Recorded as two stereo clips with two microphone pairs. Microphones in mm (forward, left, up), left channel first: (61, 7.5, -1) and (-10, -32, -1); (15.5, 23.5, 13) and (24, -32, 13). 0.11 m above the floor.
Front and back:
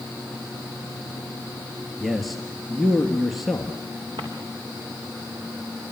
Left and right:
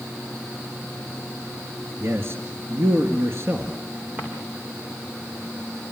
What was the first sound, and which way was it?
A man speaking, 60° right.